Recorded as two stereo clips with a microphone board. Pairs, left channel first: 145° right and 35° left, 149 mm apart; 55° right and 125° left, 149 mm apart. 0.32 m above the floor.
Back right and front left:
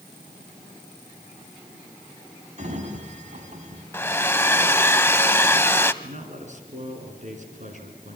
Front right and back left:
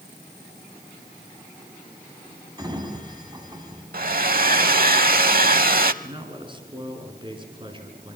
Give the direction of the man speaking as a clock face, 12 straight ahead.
10 o'clock.